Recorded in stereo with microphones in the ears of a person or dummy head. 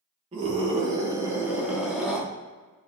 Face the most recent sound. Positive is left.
turn(degrees=0)  # may be behind; listen again after turning